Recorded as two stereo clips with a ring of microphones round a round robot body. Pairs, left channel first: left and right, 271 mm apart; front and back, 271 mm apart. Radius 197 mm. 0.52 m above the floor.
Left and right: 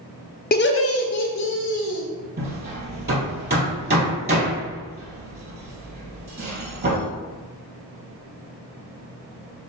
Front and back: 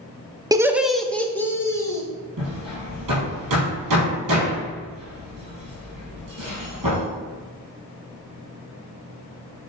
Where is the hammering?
145° right, 3 m.